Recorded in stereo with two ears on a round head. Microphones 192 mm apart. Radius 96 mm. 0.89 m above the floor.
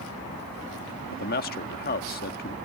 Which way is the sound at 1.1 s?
45° left (ahead or behind).